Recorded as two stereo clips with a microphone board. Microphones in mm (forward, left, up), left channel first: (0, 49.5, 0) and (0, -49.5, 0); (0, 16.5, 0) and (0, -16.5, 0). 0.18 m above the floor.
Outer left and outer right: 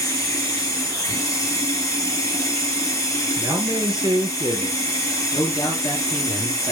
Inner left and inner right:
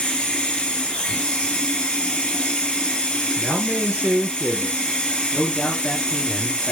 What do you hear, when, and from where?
0.0 s running water: 30° left (ahead or behind), 2.5 m
3.4 s a man speaking: 50° right (ahead or behind), 3 m
5.3 s a man speaking: 40° left (ahead or behind), 2.5 m